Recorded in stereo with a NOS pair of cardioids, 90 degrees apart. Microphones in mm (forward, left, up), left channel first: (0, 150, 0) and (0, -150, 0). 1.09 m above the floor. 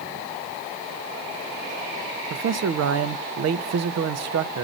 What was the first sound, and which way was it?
A man speaking, 60° right.